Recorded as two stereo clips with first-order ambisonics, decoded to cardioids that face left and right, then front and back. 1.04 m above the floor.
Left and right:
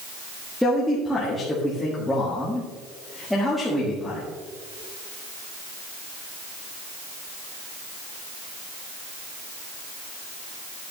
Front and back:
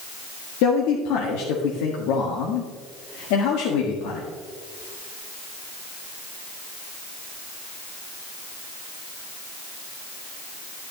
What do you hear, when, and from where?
0.6 s a man speaking: 5° left, 1.6 m